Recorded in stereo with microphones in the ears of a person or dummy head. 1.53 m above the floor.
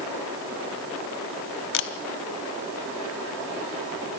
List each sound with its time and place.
1.7 s a camera shutter: 65° left (ahead or behind), 1.0 m